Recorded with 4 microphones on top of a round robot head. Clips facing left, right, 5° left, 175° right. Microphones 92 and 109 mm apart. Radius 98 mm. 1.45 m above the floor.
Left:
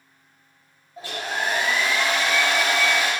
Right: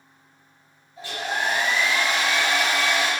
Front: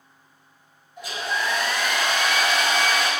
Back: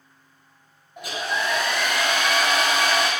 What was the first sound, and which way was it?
A hair dryer, 150° left.